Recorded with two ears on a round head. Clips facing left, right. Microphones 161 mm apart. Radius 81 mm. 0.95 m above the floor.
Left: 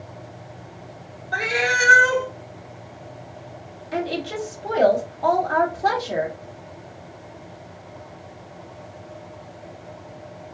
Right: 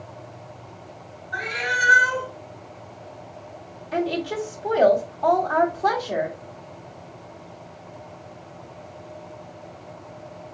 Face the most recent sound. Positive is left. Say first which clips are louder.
# right 1 dB
turn(degrees=10)  # may be behind; listen again after turning